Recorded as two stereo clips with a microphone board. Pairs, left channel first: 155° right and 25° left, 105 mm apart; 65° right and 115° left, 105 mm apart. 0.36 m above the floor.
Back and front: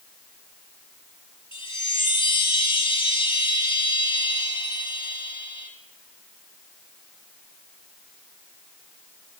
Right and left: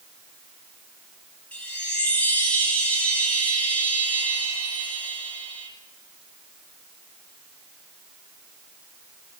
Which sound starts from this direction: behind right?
A chime, at 1.5 s.